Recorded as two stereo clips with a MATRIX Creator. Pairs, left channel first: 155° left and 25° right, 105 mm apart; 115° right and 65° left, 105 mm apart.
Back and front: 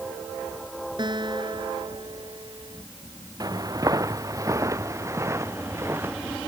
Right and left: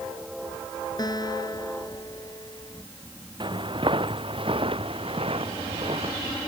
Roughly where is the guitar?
Ahead right.